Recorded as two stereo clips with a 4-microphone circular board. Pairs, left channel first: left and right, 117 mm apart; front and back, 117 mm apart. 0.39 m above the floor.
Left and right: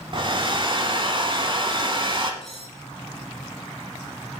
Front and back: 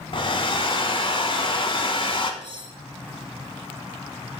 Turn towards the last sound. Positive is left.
turn(degrees=0)